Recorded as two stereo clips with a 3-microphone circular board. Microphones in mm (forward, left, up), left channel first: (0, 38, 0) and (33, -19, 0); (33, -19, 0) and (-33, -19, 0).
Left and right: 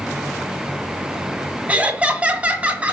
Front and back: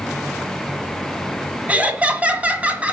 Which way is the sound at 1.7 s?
120° right.